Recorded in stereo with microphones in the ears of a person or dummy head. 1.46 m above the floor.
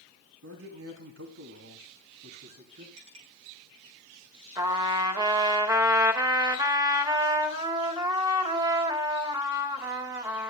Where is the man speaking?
85° right, 3 m; by 2.9 s 40° right (ahead or behind), 4 m.